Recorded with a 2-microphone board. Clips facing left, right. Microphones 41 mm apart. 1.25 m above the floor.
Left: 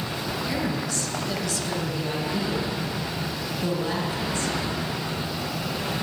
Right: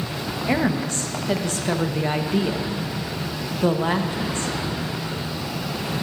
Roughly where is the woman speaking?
Right.